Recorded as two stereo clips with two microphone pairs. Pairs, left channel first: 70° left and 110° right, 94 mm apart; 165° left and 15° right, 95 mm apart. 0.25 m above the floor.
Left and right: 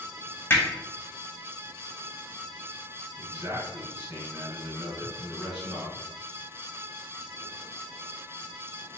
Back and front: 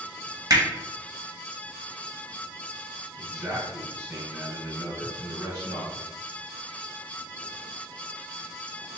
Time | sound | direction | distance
0.5 | hammering | 10° left | 1.0 m
3.2 | a man speaking | 70° right | 1.8 m